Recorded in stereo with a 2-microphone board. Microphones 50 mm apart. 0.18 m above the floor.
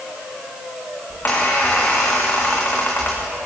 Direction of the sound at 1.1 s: 45° left (ahead or behind).